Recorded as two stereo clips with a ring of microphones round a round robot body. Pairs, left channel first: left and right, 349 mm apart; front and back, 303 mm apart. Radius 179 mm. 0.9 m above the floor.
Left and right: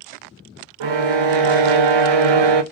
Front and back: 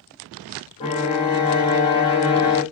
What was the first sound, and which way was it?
A violin, 75° right.